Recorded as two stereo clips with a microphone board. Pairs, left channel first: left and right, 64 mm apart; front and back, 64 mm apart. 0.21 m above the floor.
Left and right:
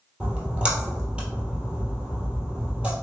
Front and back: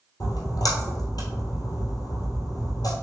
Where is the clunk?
I don't hear a clunk.